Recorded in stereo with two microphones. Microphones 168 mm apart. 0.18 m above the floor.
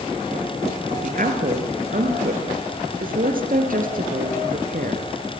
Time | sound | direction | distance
1.0 | a woman speaking | 55° right (ahead or behind) | 3 m